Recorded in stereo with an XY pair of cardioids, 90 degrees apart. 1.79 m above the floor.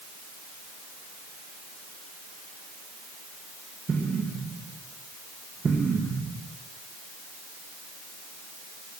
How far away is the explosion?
About 2 m.